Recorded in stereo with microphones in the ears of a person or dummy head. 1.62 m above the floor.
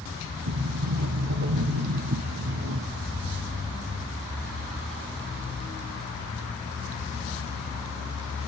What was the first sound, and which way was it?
A sliding door, 65° right (ahead or behind).